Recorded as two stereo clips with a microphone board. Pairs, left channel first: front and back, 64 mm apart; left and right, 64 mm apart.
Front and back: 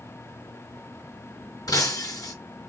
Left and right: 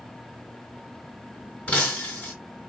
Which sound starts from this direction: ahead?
Breaking glass, at 1.7 s.